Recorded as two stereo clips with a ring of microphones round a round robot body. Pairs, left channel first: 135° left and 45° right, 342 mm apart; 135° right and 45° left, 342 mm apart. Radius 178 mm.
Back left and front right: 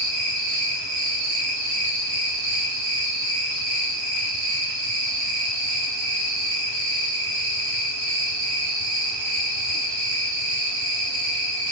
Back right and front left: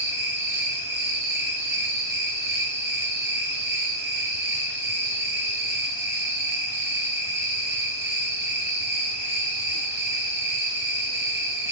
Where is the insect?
35° right, 6 m.